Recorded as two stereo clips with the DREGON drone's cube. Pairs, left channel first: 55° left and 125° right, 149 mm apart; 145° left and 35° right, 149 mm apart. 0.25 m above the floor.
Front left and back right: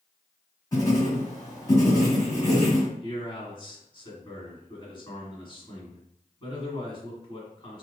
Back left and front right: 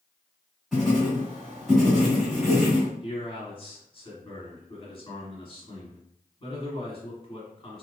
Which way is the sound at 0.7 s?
55° left.